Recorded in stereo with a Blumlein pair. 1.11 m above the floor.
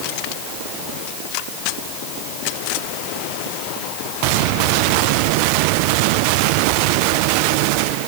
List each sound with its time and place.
Only background noise.